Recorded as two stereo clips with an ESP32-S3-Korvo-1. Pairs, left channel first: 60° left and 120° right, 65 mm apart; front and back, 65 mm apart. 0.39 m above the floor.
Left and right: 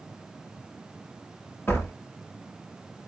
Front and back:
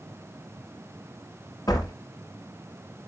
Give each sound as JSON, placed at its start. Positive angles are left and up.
{"t": 1.7, "sound": "a door slam", "azimuth_deg": 0, "distance_m": 5.0}